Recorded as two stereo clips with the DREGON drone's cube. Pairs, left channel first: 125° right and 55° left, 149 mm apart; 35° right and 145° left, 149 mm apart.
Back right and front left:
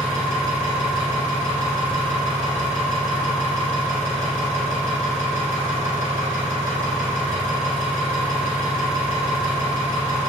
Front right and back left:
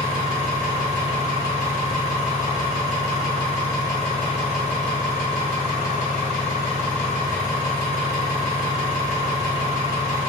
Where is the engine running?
10° right, 1.9 m.